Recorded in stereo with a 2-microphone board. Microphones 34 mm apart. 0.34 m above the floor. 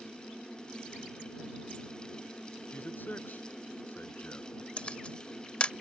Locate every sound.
2.7 s a man speaking: 60° left (ahead or behind)
4.8 s a camera shutter: 35° left (ahead or behind)